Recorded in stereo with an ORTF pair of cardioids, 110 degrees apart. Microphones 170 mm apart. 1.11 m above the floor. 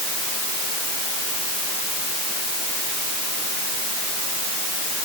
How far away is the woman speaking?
No woman speaking in this recording.